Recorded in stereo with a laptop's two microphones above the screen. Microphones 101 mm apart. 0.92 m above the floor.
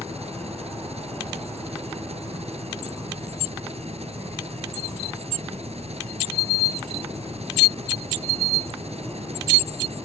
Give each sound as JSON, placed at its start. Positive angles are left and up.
{"t": 0.0, "sound": "an engine running", "side_deg": -85}